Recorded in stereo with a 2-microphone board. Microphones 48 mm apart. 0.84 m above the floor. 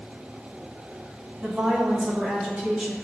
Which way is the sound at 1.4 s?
25° right (ahead or behind).